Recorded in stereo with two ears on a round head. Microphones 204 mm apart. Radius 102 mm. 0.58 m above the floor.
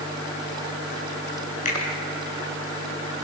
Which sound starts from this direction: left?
A finger snap, at 1.6 s.